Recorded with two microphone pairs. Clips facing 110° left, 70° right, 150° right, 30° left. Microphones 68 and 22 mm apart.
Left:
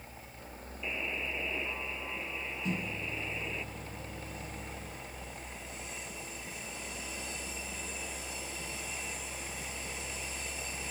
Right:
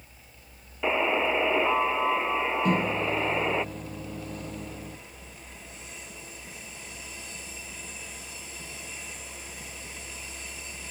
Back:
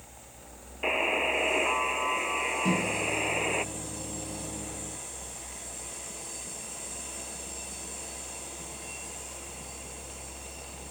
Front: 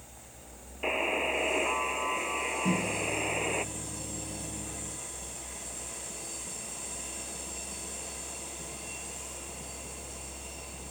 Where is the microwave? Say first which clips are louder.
Right 11 dB, back 2 dB; 100° right.